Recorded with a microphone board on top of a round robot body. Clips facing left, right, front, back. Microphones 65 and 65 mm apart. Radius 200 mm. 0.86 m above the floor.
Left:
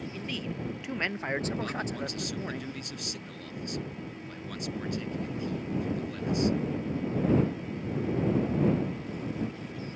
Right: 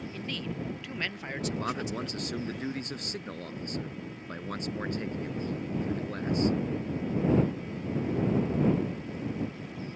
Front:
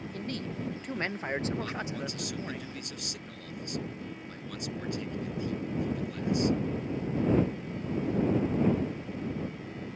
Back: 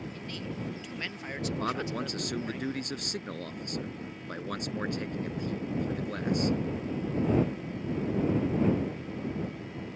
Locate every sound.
0.1 s a man speaking: 5° left; by 2.6 s 80° left
1.6 s a man speaking: 140° right